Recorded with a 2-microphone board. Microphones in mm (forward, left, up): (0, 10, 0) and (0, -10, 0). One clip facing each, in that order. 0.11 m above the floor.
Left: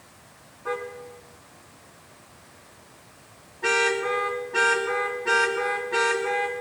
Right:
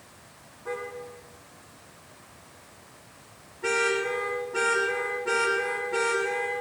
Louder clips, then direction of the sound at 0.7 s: Left 3 dB; 85° left.